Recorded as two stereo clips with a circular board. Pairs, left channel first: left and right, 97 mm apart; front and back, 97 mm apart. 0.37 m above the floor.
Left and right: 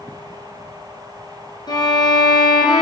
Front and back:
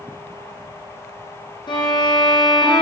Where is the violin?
40° left, 5 m.